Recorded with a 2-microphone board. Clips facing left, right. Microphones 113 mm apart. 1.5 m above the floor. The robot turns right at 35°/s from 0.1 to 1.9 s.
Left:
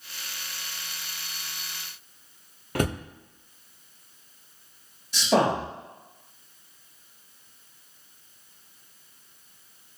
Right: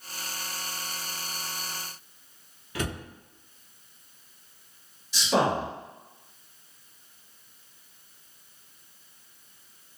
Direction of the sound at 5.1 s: 55° left (ahead or behind).